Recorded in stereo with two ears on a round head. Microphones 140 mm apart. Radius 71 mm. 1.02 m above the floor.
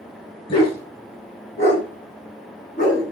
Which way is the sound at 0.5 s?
40° left (ahead or behind).